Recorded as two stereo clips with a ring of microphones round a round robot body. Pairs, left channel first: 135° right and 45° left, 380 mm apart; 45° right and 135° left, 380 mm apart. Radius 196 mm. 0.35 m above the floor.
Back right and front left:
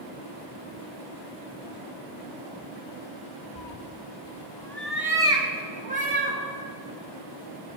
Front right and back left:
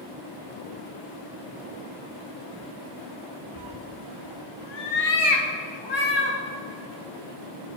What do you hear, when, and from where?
3.5 s a cat meowing: 110° right, 1.1 m; by 6.4 s 20° right, 3 m